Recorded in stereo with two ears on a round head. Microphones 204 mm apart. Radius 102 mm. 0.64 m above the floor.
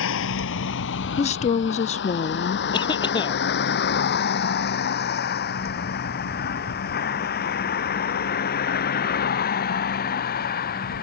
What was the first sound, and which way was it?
A vehicle, 60° left (ahead or behind).